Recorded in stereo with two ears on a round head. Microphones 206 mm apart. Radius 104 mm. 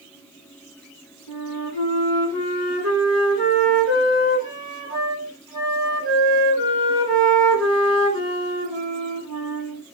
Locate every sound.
1.3 s a flute: 10° left (ahead or behind), 3 m